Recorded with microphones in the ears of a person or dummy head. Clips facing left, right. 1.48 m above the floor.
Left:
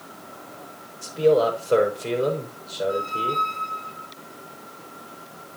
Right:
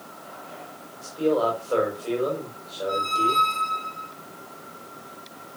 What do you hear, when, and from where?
1.0 s a man speaking: 40° left (ahead or behind), 5.5 m
2.9 s a squeak: 60° right (ahead or behind), 0.8 m